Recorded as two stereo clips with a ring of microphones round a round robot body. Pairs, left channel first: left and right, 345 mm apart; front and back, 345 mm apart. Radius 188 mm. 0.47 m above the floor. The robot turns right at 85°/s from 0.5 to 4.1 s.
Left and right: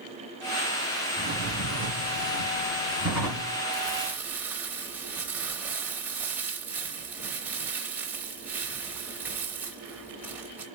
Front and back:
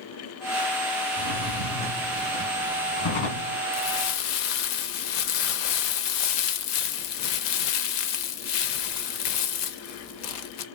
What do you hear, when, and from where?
1.2 s a drawer: 175° right, 2.5 m; by 3.6 s 30° left, 2.5 m
3.7 s crumpling: 35° right, 0.6 m; by 10.7 s 5° right, 0.6 m